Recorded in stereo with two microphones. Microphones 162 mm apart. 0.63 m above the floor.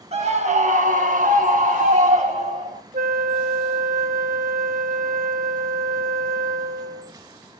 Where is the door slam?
No door slam in this recording.